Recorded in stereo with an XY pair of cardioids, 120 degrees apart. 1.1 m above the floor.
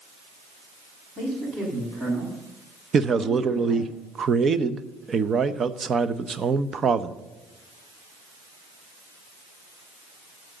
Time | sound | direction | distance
1.2 | a man speaking | 45° right | 7.5 m
2.9 | a man speaking | 35° right | 0.8 m